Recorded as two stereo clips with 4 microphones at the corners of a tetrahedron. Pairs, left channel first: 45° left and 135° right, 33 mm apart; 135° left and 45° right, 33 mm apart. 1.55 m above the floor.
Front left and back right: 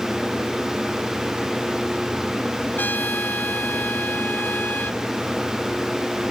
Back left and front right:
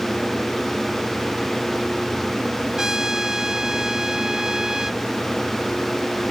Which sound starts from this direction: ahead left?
A trumpet, at 2.8 s.